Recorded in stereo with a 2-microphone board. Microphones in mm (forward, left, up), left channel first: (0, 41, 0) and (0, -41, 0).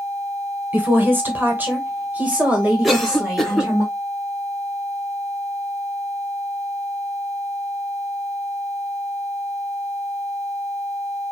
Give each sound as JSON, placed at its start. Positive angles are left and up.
{"t": 0.7, "sound": "a woman speaking", "side_deg": -25, "distance_m": 1.4}
{"t": 2.8, "sound": "a cough", "side_deg": 0, "distance_m": 1.0}